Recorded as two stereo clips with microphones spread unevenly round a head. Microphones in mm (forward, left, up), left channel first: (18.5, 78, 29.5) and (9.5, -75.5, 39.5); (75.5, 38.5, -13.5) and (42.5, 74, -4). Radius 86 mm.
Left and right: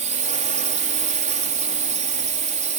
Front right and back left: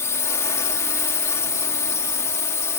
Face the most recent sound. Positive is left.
turn(degrees=-55)